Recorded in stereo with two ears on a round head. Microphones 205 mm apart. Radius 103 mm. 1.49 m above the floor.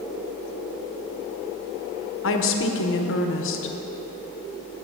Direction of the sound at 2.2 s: 60° left (ahead or behind).